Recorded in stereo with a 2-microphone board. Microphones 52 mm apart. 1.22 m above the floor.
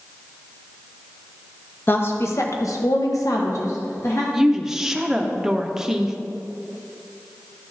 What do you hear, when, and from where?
1.9 s a woman speaking: 40° left (ahead or behind), 1.1 m; by 4.2 s 55° left (ahead or behind), 1.6 m
4.3 s a woman speaking: 10° right (ahead or behind), 0.8 m